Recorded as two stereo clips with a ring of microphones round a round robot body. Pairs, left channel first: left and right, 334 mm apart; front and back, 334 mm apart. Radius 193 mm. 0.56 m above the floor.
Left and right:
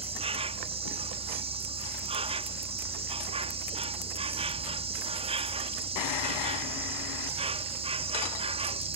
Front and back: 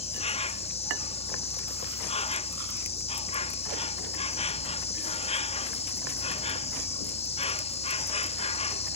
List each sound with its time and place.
0.0 s an insect: 45° right